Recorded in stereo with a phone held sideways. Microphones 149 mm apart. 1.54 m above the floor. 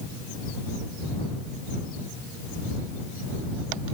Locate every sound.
Only background noise.